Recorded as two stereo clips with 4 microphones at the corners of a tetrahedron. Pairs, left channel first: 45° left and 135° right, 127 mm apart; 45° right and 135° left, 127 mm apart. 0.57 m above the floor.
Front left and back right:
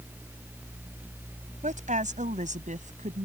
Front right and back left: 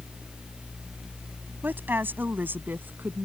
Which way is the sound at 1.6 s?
150° right.